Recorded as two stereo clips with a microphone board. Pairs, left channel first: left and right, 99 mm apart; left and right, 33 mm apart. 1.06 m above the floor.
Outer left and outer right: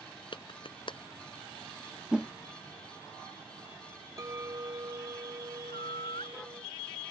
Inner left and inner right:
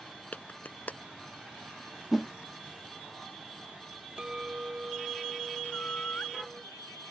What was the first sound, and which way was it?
A clap, 55° left (ahead or behind).